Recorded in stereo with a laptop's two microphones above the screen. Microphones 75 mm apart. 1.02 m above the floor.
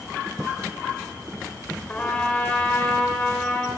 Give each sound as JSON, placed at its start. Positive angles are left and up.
{"t": 1.9, "sound": "a trumpet", "side_deg": 15, "distance_m": 4.5}